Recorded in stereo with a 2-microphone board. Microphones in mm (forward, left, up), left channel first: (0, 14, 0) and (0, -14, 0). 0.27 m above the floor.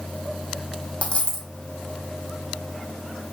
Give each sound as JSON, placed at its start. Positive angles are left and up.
{"t": 1.0, "sound": "a dropped coin", "side_deg": 45, "distance_m": 0.9}